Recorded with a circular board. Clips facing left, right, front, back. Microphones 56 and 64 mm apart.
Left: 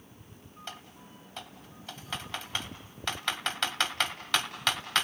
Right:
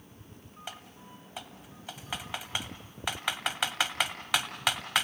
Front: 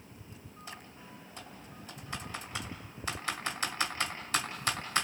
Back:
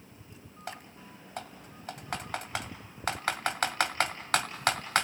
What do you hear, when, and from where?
0.7 s typing on a keyboard: 170° right, 1.9 m